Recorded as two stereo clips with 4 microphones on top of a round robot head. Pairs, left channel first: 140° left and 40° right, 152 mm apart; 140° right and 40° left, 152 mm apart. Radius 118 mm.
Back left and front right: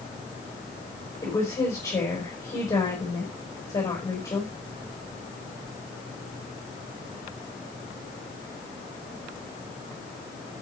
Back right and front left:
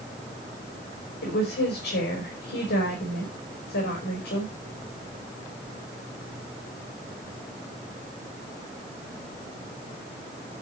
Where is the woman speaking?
150° right, 5 m.